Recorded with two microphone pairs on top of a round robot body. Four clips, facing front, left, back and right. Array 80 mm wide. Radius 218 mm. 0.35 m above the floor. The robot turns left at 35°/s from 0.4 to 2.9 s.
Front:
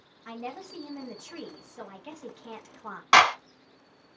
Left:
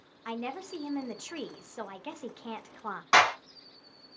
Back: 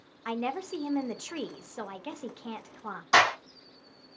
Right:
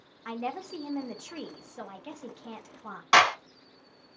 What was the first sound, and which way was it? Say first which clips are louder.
A woman speaking: right 2 dB, back 7 dB; straight behind.